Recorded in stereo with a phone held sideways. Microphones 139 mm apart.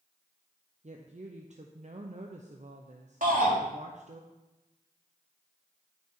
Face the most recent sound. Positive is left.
turn(degrees=-75)  # may be behind; listen again after turning